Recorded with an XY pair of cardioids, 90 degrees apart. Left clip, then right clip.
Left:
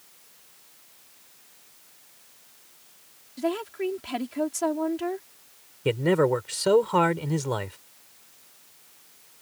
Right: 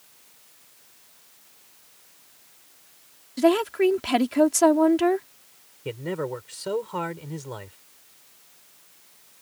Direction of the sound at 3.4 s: 65° right.